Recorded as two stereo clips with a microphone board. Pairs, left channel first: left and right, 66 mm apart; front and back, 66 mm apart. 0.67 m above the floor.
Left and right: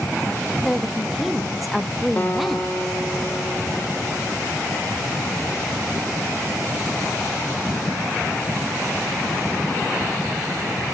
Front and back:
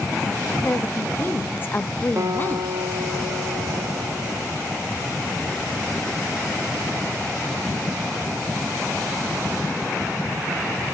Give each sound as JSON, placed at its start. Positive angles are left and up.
{"t": 0.6, "sound": "a woman speaking", "azimuth_deg": 0, "distance_m": 0.6}
{"t": 2.2, "sound": "a guitar", "azimuth_deg": 150, "distance_m": 0.8}